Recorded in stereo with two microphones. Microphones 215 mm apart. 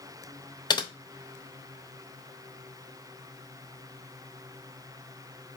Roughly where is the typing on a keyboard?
Centre.